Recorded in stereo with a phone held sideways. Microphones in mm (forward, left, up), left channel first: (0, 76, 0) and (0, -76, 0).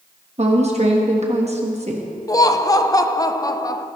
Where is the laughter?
25° left (ahead or behind), 0.6 m.